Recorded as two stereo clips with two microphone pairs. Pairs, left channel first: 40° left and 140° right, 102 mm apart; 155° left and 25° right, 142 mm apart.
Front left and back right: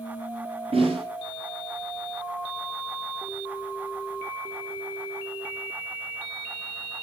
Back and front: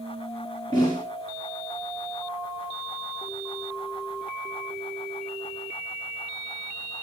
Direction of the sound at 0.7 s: 150° right.